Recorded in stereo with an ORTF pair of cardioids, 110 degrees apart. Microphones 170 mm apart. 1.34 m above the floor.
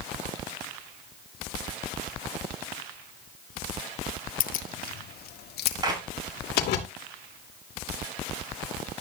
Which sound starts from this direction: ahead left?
Keys jangling, at 4.4 s.